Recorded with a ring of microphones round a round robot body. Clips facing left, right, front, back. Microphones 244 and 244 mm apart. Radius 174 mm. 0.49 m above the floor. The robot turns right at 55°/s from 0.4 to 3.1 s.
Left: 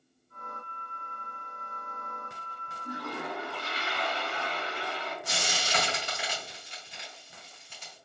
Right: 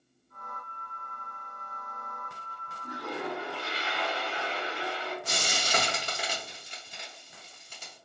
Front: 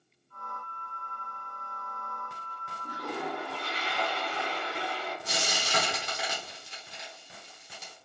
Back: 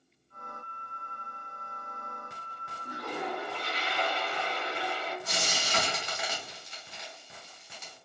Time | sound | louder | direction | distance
2.8 | a toilet flushing | right 2 dB, even | 30° right | 1.8 m
5.2 | frying | right 1 dB, front 1 dB | 50° right | 0.7 m